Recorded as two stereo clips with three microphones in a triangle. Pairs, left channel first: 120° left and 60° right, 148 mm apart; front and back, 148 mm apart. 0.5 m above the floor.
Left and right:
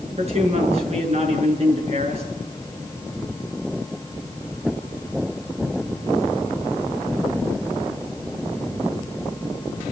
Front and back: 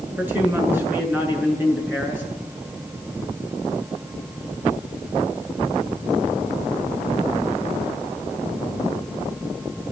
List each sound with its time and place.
0.2 s a man speaking: 105° right, 7.5 m